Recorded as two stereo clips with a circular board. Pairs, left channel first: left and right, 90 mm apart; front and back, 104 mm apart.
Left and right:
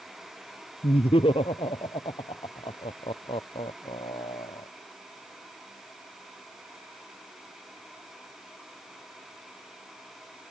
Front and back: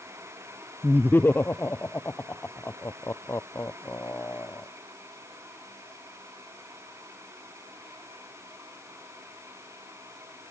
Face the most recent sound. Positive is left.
turn(degrees=65)